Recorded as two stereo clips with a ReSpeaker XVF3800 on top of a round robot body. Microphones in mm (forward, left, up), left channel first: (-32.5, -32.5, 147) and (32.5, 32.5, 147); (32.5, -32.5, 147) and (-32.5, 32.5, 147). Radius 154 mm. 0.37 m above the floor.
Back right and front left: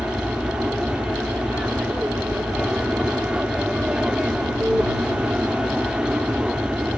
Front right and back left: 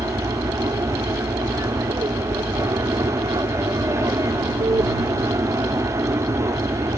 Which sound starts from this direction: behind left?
An aircraft, at 0.0 s.